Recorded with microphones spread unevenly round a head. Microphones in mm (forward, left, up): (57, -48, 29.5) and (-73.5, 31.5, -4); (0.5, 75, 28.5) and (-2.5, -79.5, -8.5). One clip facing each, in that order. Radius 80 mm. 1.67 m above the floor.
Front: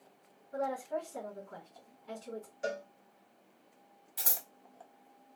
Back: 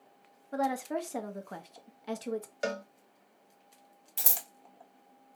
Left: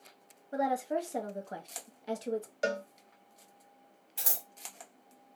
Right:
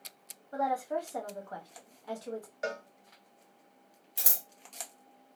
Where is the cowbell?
145° left, 0.7 m.